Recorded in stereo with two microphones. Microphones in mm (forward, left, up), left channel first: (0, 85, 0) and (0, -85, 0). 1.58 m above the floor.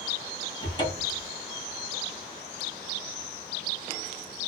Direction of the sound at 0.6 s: 25° left (ahead or behind).